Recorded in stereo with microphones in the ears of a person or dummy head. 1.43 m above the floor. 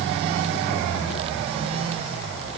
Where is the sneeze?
No sneeze in this recording.